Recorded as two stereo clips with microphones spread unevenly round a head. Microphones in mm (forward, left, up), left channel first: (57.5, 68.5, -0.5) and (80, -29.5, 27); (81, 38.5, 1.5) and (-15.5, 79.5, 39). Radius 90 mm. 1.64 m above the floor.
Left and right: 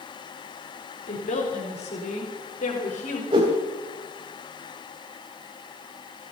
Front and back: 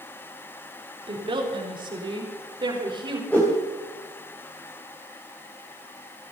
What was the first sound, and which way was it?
A woman speaking, 125° left.